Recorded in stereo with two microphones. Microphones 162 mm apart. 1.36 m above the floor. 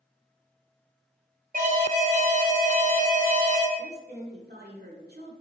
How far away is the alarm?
About 1.1 m.